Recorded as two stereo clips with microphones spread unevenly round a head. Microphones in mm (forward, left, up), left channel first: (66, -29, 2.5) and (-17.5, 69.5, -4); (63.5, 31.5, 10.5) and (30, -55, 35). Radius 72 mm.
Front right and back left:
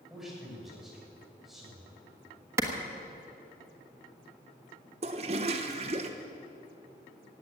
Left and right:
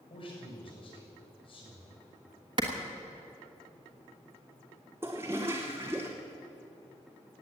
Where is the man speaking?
45° left, 7 m.